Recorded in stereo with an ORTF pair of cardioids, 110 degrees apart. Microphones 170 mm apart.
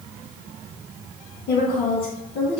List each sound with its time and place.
1.5 s a woman speaking: 65° left, 2.5 m